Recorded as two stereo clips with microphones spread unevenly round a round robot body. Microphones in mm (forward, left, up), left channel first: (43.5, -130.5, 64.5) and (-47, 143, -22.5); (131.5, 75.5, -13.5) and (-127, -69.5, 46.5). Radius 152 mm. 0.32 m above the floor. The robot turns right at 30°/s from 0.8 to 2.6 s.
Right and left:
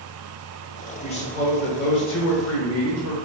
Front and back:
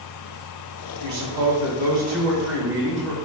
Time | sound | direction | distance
1.0 | a man speaking | 155° right | 1.3 m